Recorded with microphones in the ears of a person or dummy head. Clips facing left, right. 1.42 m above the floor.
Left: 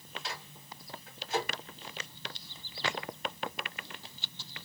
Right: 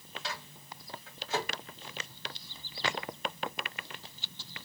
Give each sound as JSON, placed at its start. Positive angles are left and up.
{"t": 0.2, "sound": "a microwave", "side_deg": -50, "distance_m": 1.8}